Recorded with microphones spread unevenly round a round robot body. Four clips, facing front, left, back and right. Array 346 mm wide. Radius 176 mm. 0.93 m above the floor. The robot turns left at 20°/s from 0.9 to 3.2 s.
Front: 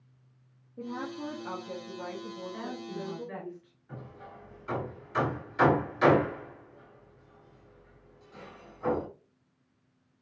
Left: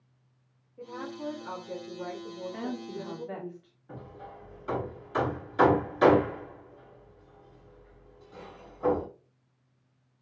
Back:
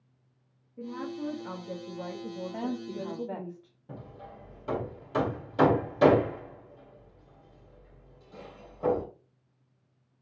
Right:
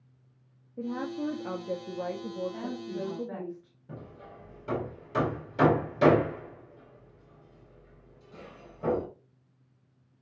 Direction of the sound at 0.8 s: 80° right.